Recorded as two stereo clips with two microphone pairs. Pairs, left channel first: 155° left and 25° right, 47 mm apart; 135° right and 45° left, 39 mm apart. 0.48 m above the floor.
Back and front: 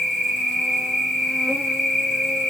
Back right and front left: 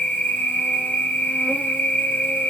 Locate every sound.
0.0 s an insect: 105° right, 1.7 m